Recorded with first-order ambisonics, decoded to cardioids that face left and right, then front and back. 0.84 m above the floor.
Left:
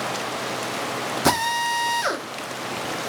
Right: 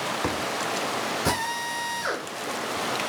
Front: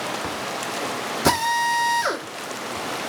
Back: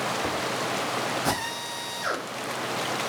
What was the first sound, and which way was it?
A drill, 50° left.